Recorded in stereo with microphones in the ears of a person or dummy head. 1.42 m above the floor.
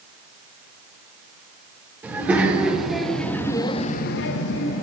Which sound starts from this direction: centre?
A child speaking, at 2.0 s.